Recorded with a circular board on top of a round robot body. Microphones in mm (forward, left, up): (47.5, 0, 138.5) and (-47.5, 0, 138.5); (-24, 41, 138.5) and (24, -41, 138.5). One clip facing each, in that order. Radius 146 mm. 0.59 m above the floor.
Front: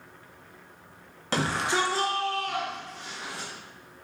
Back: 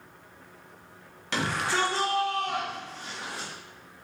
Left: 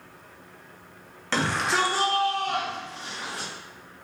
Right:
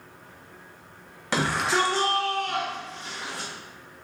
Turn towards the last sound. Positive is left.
turn(degrees=175)